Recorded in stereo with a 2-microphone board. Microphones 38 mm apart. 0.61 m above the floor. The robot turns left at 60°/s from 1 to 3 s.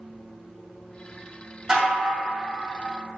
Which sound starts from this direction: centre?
Dishes clattering, at 1.7 s.